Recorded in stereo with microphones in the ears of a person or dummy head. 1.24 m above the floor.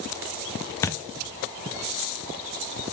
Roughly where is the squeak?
I don't hear a squeak.